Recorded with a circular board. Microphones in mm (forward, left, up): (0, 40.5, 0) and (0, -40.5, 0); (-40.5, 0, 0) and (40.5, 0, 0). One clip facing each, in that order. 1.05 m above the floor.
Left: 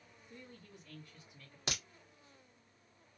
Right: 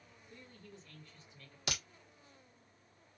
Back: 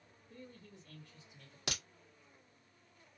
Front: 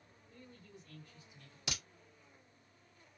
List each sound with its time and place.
0.3 s a man speaking: 165° left, 1.9 m
1.7 s a crack: 150° left, 1.6 m